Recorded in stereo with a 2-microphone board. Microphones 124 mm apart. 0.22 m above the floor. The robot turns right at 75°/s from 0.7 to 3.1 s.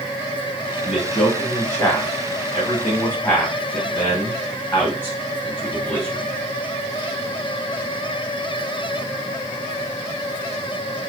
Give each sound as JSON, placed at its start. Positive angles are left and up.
{"t": 0.8, "sound": "a man speaking", "side_deg": -10, "distance_m": 1.6}